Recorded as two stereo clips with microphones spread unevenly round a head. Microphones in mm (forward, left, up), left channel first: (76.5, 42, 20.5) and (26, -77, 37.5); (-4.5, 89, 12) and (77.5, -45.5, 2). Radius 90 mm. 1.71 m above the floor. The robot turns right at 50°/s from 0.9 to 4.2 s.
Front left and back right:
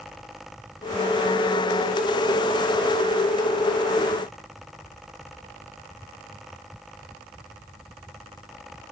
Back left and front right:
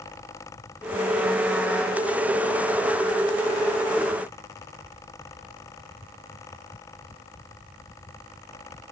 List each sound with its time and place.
Only background noise.